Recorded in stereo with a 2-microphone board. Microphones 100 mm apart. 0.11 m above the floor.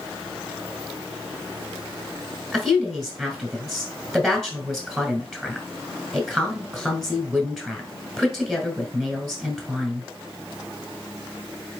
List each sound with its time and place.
2.5 s a woman speaking: centre (ahead or behind), 1.5 m